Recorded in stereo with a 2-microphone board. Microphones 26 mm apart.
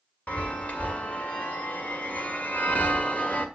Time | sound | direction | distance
0.3 | a chime | 65° left (ahead or behind) | 2 m